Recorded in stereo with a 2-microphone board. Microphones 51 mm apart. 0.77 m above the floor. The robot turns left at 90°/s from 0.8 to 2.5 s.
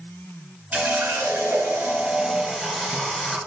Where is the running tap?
40° right, 3.5 m; by 3.4 s 170° left, 3.5 m.